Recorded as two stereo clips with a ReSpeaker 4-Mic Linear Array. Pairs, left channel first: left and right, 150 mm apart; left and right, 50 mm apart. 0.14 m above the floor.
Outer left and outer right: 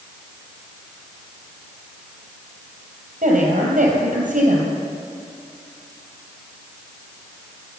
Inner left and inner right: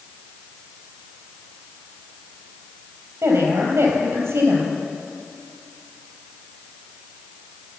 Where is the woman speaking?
70° right (ahead or behind), 3.5 m.